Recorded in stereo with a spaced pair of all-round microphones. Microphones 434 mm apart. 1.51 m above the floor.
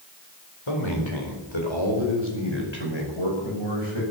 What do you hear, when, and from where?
0.7 s a man speaking: 85° left, 4.5 m; by 4.0 s 80° left, 6 m